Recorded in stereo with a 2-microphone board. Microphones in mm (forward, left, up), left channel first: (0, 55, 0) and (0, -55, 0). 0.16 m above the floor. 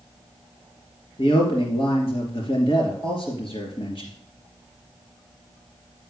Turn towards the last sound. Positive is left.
turn(degrees=50)  # may be behind; listen again after turning